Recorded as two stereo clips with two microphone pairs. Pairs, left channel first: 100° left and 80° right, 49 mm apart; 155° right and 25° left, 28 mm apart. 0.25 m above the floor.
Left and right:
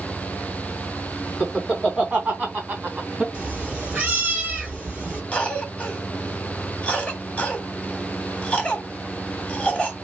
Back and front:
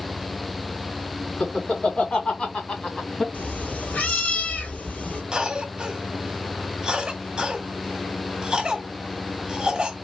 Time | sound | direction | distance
1.4 | laughter | 140° right | 3 m
3.3 | a cat meowing | 140° right | 1.9 m
5.3 | a cough | 60° left | 1.2 m